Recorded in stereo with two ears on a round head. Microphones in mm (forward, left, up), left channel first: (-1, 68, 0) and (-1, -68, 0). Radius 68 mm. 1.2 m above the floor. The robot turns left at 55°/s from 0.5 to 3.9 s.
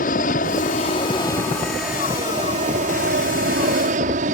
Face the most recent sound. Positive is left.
turn(degrees=-115)